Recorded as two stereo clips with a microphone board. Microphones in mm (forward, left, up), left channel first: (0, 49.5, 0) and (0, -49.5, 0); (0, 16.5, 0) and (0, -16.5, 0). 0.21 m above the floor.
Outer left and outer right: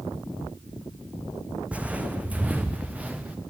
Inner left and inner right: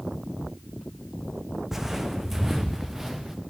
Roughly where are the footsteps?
Centre.